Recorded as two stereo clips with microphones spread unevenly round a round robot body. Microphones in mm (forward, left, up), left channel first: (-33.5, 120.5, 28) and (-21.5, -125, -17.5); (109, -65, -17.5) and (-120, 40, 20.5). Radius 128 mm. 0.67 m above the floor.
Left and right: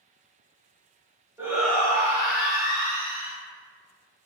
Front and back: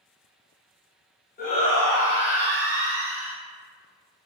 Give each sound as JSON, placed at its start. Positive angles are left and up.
{"t": 1.4, "sound": "a shout", "azimuth_deg": -25, "distance_m": 0.8}